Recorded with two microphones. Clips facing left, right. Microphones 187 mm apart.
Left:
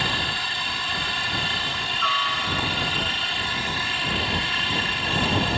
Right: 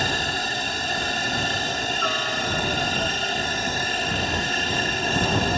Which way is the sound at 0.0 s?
50° right (ahead or behind).